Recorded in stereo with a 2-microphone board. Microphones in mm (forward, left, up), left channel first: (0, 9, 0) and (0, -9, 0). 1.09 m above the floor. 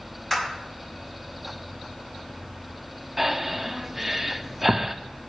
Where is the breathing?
10° right (ahead or behind), 0.6 m.